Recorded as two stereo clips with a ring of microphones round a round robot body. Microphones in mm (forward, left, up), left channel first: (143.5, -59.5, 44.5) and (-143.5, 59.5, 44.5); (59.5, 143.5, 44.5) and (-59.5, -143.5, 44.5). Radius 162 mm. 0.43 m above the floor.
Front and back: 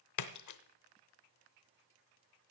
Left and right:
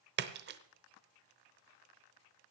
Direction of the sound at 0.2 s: 55° right.